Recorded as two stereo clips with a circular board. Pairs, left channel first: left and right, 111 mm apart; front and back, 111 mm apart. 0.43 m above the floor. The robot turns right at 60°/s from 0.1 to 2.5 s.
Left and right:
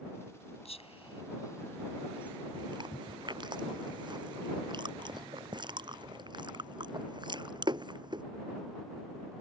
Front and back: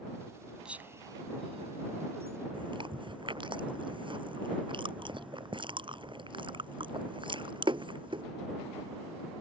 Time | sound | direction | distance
0.7 | whispering | 100° left | ?
2.5 | chewing | 135° right | ?